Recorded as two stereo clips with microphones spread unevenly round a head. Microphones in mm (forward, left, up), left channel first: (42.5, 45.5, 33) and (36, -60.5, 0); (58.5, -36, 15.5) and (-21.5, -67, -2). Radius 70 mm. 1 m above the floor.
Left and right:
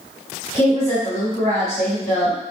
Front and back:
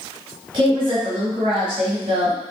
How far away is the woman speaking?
About 2 m.